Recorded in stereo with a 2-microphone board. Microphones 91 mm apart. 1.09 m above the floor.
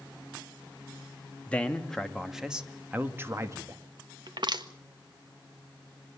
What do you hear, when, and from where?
1.5 s a man speaking: 15° left (ahead or behind), 2.5 m; by 3.8 s 40° right (ahead or behind), 2.5 m
4.3 s crushing: 55° right (ahead or behind), 1.7 m